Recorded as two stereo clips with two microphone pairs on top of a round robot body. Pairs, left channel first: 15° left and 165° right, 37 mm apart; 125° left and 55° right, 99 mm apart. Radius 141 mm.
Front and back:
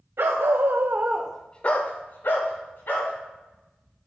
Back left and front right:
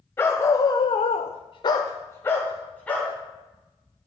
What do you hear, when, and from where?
0.2 s a dog barking: 170° right, 1.2 m; by 3.1 s 45° left, 2 m